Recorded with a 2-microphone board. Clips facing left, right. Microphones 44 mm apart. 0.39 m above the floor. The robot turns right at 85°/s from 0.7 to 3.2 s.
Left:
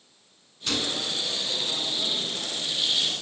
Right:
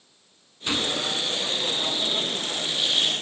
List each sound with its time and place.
0.7 s a gunshot: 155° right, 3.5 m; by 1.2 s 115° right, 3.5 m